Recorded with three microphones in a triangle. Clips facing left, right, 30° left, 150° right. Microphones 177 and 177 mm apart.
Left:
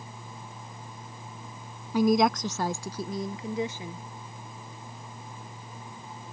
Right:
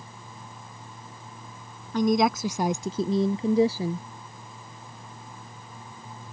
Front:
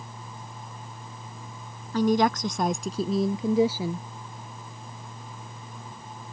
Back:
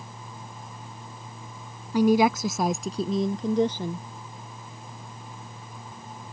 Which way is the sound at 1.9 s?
155° left.